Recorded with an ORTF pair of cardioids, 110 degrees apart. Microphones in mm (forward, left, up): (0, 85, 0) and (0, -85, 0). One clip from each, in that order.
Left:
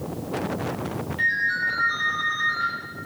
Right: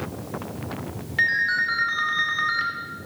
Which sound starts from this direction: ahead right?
A ringtone, at 1.2 s.